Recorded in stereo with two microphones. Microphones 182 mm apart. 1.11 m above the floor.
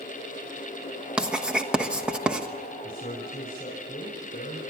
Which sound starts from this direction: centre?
Writing, at 1.2 s.